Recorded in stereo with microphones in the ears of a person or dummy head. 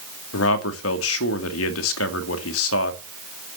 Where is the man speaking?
85° left, 2.5 m.